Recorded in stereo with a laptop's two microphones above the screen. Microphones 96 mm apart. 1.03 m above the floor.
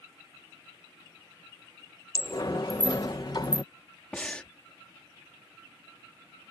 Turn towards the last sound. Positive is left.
turn(degrees=10)  # may be behind; listen again after turning